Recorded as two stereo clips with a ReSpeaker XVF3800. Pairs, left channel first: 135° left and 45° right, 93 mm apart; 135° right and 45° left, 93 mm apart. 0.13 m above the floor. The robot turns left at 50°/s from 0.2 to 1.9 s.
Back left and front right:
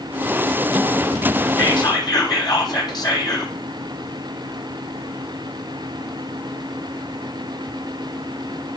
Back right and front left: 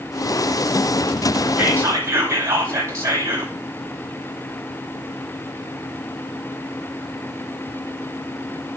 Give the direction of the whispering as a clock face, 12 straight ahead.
8 o'clock.